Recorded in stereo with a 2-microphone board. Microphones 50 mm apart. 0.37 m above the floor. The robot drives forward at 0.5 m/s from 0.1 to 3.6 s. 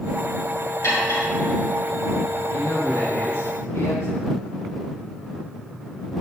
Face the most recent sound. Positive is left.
turn(degrees=65)  # may be behind; listen again after turning